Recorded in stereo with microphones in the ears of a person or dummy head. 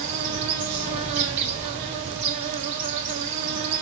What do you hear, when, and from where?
0.0 s an insect: 40° right (ahead or behind), 1.6 m